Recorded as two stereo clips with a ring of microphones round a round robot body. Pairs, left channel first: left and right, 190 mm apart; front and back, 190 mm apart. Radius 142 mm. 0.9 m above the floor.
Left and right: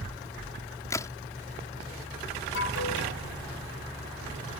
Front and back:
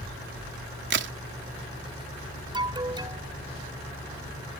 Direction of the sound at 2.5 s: 115° left.